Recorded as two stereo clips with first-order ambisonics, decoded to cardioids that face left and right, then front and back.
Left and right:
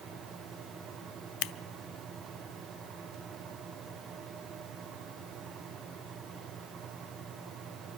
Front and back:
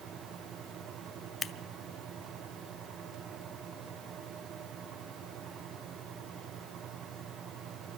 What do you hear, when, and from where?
1.4 s scissors: 75° left, 0.7 m